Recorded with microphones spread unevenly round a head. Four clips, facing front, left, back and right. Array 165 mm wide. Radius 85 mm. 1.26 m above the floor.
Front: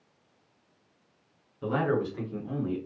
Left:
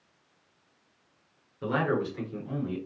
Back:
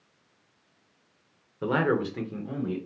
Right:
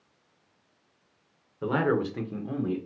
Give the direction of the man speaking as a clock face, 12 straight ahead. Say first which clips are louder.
Right 2 dB, back 2 dB; 6 o'clock.